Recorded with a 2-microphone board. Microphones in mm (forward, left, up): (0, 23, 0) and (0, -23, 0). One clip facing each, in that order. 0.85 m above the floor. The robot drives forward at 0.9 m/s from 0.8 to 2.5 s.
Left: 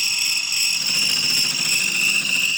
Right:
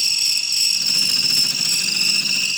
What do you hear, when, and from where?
0.0 s an insect: 45° left (ahead or behind), 1.0 m; by 2.6 s 30° left (ahead or behind), 1.5 m